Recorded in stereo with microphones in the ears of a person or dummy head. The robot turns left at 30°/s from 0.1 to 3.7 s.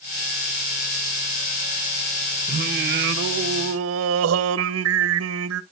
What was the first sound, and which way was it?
Singing, 50° right.